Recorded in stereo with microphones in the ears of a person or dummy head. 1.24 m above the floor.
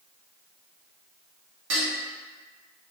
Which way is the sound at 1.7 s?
70° right (ahead or behind).